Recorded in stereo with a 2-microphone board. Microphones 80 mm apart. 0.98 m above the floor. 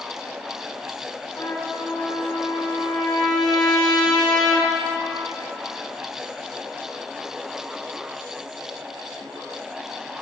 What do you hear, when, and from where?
1.4 s a trumpet: 60° left (ahead or behind), 1.5 m